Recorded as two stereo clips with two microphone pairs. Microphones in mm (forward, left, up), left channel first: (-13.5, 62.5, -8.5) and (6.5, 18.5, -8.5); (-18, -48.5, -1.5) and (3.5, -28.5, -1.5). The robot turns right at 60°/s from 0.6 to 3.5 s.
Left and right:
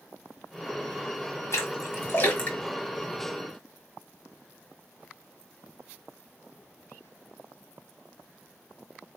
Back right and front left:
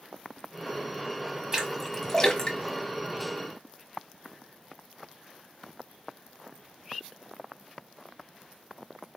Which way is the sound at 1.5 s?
110° left.